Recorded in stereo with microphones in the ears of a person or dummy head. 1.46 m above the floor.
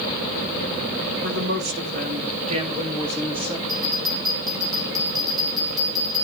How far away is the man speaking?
About 1.4 m.